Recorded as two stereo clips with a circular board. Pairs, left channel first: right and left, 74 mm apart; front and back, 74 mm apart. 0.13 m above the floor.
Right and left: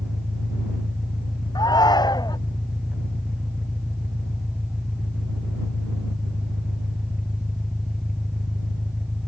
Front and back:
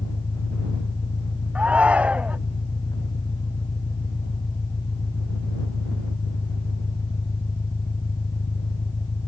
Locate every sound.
0.0 s an engine running: 10° left
1.6 s a shout: 110° right